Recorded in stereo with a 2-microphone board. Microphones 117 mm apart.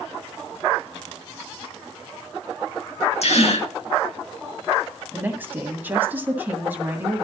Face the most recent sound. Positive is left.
turn(degrees=-15)  # may be behind; listen again after turning